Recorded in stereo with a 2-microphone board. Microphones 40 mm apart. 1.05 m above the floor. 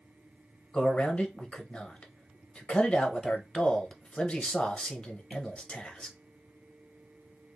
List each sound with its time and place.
0.7 s a man speaking: 25° left (ahead or behind), 0.8 m